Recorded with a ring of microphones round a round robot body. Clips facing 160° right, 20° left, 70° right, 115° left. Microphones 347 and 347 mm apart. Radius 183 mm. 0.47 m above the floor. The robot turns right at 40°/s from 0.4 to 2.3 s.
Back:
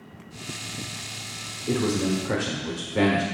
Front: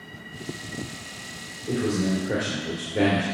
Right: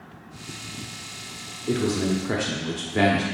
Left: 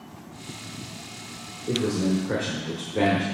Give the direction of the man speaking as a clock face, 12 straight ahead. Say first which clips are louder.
Back 1 dB, right 1 dB; 4 o'clock.